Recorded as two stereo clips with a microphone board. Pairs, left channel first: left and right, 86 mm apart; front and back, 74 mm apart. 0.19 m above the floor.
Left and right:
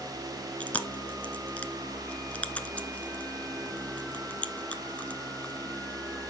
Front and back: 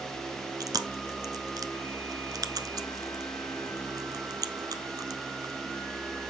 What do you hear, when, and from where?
0.6 s chewing: 160° left, 0.9 m